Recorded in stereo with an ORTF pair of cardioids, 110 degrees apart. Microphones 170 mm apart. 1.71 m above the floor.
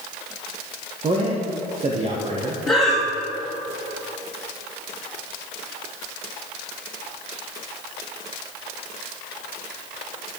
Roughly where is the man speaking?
Ahead right.